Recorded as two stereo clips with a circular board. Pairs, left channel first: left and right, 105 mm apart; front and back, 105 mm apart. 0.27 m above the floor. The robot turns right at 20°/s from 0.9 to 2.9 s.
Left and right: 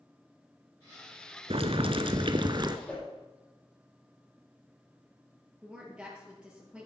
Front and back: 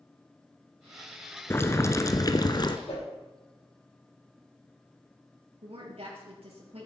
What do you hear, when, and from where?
1.5 s boiling: 70° right, 0.9 m; by 2.8 s 45° right, 0.9 m
2.9 s a whoosh: 10° left, 6 m
5.6 s a woman speaking: 170° right, 5.5 m